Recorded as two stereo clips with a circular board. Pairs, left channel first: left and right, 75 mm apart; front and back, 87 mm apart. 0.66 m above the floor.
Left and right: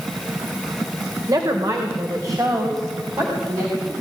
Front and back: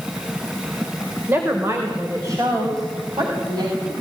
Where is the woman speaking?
115° right, 2.5 m; by 3.9 s 140° right, 5 m.